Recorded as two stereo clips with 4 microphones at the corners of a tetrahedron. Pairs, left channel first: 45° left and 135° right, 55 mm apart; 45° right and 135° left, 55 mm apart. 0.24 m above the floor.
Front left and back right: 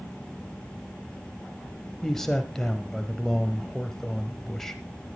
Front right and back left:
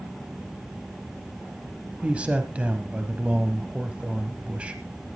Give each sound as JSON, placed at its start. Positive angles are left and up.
{"t": 2.0, "sound": "a man speaking", "azimuth_deg": 115, "distance_m": 1.2}